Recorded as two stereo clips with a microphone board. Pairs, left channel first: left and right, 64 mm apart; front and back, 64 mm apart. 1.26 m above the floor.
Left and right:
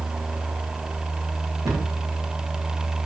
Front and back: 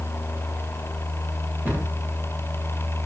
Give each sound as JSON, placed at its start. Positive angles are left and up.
{"t": 1.6, "sound": "a cupboard door", "azimuth_deg": -120, "distance_m": 1.8}